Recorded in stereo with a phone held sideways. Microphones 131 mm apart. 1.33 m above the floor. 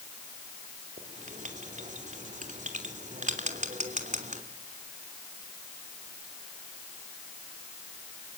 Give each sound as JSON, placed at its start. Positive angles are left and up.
{"t": 1.0, "sound": "writing", "side_deg": -80, "distance_m": 2.5}